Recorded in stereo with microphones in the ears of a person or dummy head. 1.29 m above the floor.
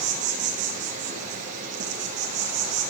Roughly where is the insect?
Right.